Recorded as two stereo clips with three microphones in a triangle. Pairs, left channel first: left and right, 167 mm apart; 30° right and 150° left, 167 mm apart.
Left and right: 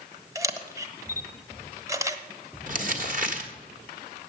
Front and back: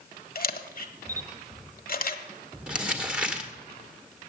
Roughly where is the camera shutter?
Ahead.